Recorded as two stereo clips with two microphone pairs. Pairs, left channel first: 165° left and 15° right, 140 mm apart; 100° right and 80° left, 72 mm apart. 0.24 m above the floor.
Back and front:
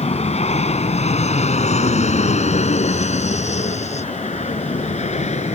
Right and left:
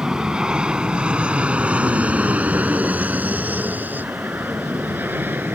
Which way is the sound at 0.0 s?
155° left.